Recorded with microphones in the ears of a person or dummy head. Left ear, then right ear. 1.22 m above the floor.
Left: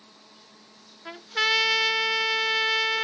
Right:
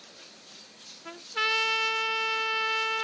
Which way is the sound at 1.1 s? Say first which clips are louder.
Left 4 dB; 15° left (ahead or behind).